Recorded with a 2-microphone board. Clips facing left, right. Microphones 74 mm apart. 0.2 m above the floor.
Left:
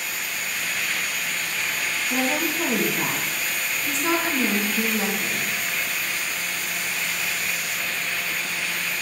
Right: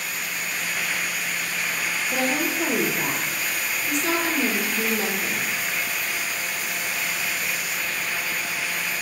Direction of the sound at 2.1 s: 35° left (ahead or behind).